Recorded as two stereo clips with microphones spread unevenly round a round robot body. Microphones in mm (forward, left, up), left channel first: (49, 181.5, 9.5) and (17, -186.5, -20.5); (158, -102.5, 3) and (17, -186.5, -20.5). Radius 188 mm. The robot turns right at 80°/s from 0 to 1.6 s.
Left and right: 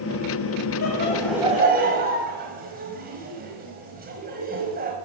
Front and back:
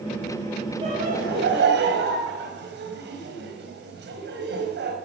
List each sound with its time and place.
0.8 s laughter: 135° left, 4.5 m; by 5.0 s 165° right, 4.5 m